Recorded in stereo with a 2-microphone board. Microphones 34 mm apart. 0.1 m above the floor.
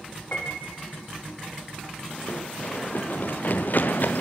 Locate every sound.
0.3 s a piano: 45° left (ahead or behind), 5 m
2.3 s running footsteps: 50° left (ahead or behind), 1.8 m; by 4.2 s 55° left (ahead or behind), 3 m